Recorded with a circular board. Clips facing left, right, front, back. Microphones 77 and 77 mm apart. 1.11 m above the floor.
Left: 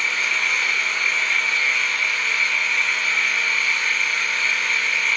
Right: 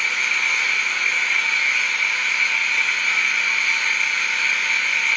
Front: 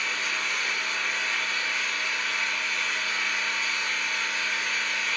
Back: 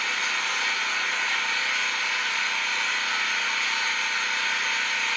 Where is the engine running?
175° right, 3.5 m.